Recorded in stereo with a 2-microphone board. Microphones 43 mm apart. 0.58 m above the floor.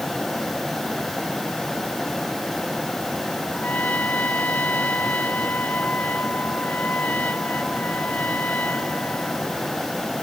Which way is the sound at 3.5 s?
40° left (ahead or behind).